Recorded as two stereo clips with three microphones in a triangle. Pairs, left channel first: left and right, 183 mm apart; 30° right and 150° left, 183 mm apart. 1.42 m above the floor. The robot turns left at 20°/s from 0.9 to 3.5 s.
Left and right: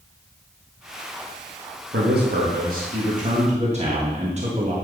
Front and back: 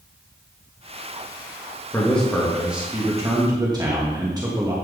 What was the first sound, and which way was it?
A man speaking, 110° right.